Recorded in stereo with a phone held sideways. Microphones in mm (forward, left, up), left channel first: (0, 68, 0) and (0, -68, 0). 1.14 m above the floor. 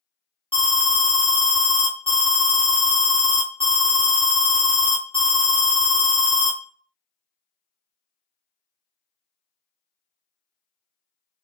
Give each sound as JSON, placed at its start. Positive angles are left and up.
{"t": 0.5, "sound": "an alarm", "side_deg": 40, "distance_m": 1.2}